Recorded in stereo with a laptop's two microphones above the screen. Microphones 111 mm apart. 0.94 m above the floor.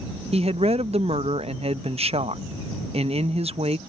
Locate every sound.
0.3 s a woman speaking: 65° right (ahead or behind)